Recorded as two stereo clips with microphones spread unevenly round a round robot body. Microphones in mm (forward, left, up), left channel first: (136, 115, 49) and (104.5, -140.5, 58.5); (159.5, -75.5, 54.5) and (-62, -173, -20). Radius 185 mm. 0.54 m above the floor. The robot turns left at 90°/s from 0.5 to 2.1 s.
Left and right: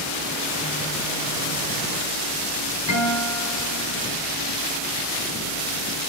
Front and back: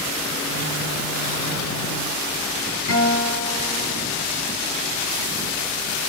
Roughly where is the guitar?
Left.